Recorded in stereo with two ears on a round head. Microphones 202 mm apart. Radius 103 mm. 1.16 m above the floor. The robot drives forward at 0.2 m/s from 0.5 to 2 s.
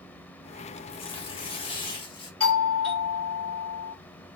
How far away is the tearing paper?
About 0.8 m.